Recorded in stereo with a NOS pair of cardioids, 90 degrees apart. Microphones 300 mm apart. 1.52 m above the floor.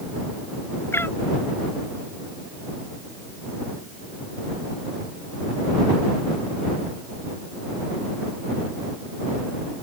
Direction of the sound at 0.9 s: 10° left.